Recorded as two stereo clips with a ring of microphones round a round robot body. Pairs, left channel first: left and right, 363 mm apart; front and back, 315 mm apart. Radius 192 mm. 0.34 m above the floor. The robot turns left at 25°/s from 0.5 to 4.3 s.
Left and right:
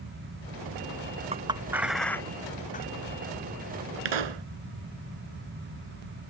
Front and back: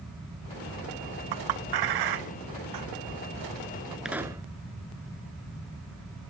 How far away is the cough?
No cough in this recording.